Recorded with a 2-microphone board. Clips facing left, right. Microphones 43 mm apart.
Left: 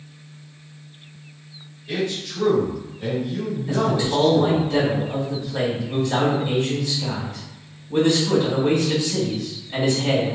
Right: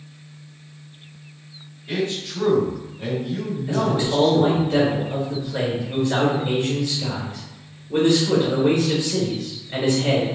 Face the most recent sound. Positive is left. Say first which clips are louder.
# even
turn(degrees=-35)  # may be behind; listen again after turning